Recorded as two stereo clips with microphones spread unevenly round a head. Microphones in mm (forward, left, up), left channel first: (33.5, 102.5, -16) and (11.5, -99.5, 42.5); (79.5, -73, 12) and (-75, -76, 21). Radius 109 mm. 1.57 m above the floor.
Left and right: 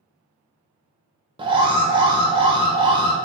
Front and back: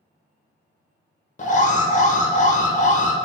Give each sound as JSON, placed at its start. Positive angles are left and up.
{"t": 1.4, "sound": "an alarm", "azimuth_deg": -40, "distance_m": 0.9}